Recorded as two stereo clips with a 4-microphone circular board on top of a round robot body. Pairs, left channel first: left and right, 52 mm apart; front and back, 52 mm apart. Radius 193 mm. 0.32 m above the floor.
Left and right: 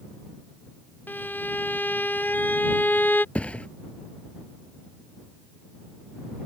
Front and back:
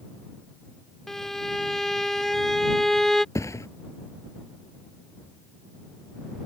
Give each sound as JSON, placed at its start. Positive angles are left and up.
{"t": 1.1, "sound": "a violin", "azimuth_deg": 80}
{"t": 3.4, "sound": "a thud", "azimuth_deg": 20}